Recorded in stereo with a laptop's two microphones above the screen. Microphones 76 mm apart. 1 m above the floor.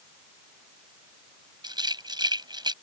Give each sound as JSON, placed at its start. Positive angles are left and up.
{"t": 1.6, "sound": "a rattle", "side_deg": -70}